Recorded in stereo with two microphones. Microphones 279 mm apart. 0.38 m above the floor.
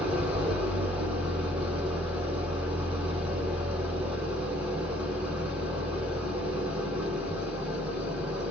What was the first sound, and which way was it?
An engine running, 5° right (ahead or behind).